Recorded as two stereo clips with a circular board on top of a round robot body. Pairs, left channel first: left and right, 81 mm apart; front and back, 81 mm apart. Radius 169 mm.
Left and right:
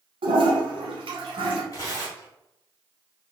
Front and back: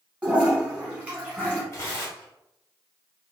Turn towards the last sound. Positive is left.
turn(degrees=45)